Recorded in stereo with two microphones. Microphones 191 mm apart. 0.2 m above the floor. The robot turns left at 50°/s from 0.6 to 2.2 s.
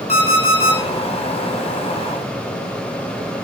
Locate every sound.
0.1 s an alarm clock: 35° left (ahead or behind), 0.9 m; by 0.8 s 30° left (ahead or behind), 0.9 m